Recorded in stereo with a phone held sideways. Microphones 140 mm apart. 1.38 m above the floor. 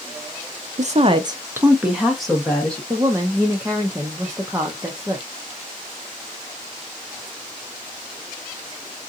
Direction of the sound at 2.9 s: 20° right (ahead or behind).